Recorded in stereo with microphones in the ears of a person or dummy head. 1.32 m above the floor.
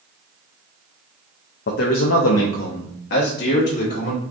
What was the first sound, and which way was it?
A man speaking, 55° left (ahead or behind).